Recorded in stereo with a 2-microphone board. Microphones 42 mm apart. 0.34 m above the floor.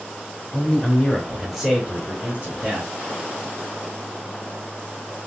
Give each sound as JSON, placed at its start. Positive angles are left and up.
{"t": 0.5, "sound": "a man speaking", "side_deg": 30, "distance_m": 1.1}